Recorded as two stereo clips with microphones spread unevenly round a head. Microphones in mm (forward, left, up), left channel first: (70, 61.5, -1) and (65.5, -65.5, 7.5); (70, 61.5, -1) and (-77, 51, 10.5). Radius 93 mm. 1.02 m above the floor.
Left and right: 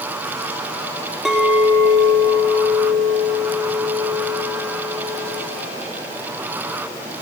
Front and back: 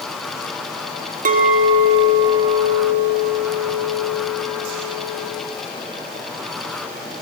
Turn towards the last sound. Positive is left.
turn(degrees=-175)